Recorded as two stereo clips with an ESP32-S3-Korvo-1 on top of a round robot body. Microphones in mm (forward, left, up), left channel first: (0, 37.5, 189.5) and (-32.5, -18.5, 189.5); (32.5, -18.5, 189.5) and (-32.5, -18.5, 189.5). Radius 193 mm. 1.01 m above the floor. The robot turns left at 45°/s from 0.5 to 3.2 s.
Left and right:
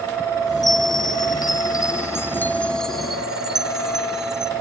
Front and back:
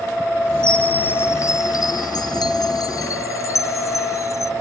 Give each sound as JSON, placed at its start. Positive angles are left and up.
{"t": 0.6, "sound": "a chime", "azimuth_deg": 80}